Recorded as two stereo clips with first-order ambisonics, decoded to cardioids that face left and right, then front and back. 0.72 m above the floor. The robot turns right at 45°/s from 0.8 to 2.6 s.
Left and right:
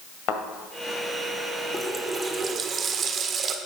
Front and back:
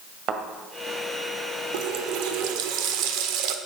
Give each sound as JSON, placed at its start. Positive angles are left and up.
{"t": 0.3, "sound": "a thud", "azimuth_deg": 130, "distance_m": 1.7}
{"t": 1.7, "sound": "a running tap", "azimuth_deg": 170, "distance_m": 1.3}